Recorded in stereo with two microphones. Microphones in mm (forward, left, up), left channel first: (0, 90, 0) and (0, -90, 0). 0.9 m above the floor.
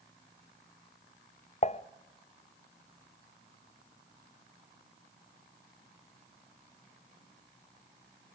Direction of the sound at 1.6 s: 40° left (ahead or behind).